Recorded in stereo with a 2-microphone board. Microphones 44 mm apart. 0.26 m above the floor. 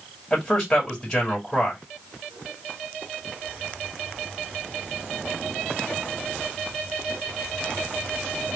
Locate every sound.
0.3 s a man speaking: 5° left (ahead or behind), 1.6 m